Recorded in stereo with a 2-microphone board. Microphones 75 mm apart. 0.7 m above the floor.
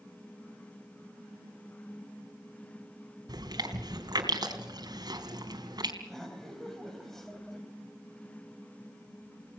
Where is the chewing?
65° right (ahead or behind), 3 m.